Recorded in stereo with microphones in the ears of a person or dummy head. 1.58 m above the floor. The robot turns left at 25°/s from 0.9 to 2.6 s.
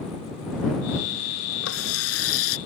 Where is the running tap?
80° left.